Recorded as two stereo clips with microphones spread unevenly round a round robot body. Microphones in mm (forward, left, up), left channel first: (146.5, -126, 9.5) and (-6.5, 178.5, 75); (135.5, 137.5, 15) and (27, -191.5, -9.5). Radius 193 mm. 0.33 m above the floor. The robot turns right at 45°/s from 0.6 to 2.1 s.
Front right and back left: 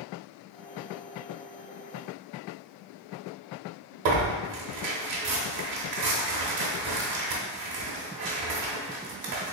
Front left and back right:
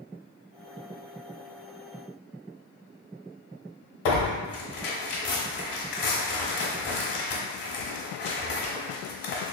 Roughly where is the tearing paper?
Left.